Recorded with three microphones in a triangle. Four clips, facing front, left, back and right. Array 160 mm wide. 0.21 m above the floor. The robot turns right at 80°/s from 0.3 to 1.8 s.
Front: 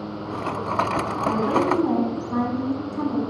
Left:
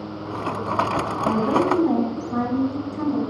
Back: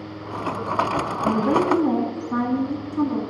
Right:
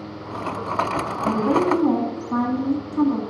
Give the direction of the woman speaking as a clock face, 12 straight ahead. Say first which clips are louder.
Right 1 dB, back 2 dB; 5 o'clock.